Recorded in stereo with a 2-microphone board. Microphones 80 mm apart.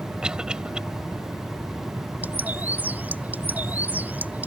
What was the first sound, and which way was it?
A cough, 10° right (ahead or behind).